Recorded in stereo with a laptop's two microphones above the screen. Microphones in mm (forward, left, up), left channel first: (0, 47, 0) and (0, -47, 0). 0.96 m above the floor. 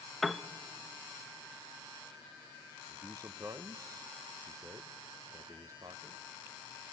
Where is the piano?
Centre (ahead or behind), 0.7 m.